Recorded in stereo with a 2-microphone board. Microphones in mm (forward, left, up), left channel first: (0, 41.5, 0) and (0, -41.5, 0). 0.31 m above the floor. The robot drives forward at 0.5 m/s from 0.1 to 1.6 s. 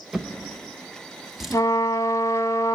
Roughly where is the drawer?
Centre.